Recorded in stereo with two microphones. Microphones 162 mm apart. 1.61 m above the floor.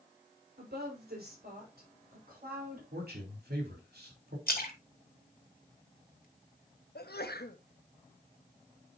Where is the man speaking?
85° right, 4 m.